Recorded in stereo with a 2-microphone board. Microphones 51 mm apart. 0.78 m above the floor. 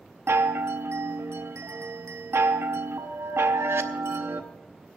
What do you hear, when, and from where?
0.3 s a chime: 60° right (ahead or behind), 0.8 m